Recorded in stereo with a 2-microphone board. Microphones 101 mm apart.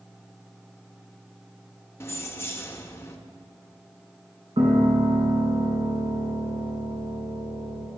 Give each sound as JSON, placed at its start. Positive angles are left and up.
{"t": 2.0, "sound": "keys jangling", "side_deg": 25, "distance_m": 0.7}
{"t": 4.6, "sound": "a piano", "side_deg": -70, "distance_m": 1.8}